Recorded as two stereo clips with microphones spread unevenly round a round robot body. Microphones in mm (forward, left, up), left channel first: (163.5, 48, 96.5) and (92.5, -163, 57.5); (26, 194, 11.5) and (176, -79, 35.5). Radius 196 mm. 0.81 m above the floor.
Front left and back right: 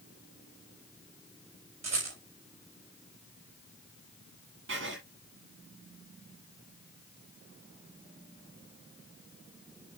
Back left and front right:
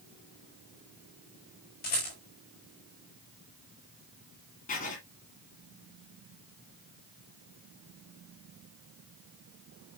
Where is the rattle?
175° right, 5 m.